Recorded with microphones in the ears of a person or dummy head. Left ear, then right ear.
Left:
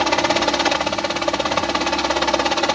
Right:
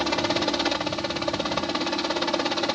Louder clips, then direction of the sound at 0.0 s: Left 7 dB; 35° left (ahead or behind).